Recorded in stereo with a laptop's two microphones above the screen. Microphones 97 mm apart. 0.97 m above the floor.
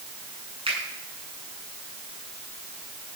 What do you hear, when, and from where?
0.7 s a finger snap: 70° right (ahead or behind), 8 m